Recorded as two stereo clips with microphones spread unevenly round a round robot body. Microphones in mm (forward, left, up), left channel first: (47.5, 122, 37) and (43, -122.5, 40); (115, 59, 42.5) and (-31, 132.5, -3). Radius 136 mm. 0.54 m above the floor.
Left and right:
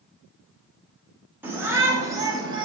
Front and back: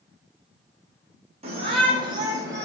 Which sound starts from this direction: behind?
A shout, at 1.4 s.